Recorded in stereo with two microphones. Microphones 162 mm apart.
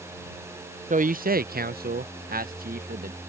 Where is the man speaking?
60° right (ahead or behind); by 3.2 s 65° right (ahead or behind).